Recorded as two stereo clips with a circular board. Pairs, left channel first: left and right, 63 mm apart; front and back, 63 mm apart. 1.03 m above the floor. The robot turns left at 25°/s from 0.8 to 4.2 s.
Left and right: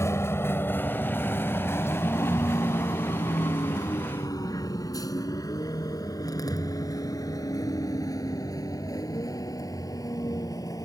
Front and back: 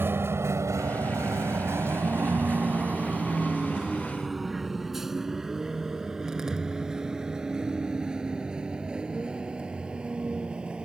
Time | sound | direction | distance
0.0 | a vehicle | 130° left | ?